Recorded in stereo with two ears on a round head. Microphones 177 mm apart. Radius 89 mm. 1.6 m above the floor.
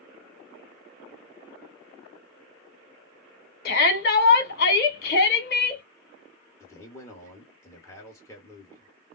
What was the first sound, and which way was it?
A shout, 55° left (ahead or behind).